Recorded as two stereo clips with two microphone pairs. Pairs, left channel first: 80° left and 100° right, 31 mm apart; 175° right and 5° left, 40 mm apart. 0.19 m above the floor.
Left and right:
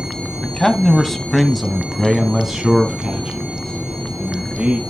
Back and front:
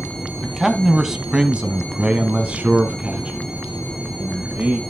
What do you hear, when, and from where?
0.4 s a man speaking: 90° left, 1.1 m; by 4.8 s 40° right, 2 m